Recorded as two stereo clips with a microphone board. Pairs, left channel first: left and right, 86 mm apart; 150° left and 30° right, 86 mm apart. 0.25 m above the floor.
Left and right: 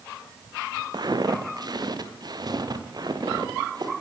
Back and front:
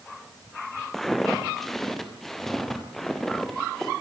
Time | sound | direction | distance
0.9 | footsteps | 125° right | 3 m